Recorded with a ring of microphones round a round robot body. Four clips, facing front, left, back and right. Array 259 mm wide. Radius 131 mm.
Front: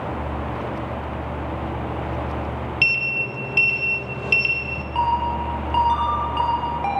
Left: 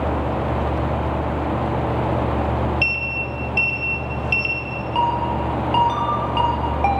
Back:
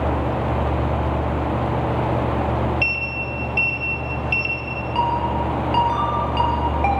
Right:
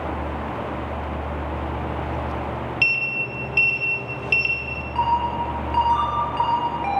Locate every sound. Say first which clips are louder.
2.8 s a sliding door: left 2 dB, back 1 dB; 5° right, 1.2 m
5.0 s a ringtone: left 1 dB, even; 125° left, 4 m